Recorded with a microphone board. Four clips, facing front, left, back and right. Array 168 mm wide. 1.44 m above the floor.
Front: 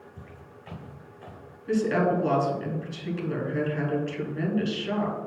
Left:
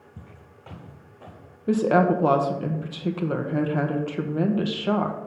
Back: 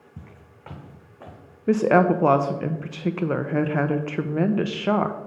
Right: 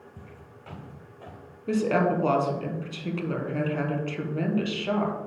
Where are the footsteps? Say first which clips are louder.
Right 1 dB, front 1 dB; 165° left, 4 m; by 1.4 s 170° right, 4 m.